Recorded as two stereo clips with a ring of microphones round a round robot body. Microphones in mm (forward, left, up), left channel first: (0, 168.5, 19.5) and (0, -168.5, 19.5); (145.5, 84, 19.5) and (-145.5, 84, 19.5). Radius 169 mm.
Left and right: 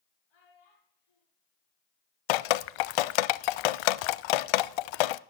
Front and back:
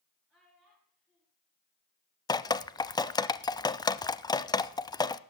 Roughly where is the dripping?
Left.